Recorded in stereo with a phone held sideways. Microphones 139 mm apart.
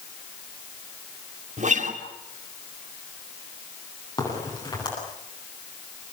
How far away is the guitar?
About 2.5 m.